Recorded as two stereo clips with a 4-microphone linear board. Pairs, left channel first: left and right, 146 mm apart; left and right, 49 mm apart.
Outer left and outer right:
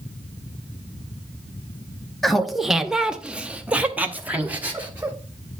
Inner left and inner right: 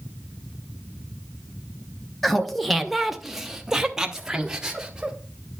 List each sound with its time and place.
2.2 s laughter: centre (ahead or behind), 0.7 m; by 5.2 s 10° right (ahead or behind), 1.3 m